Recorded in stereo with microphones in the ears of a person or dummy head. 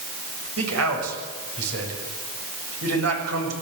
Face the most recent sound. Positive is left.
turn(degrees=-85)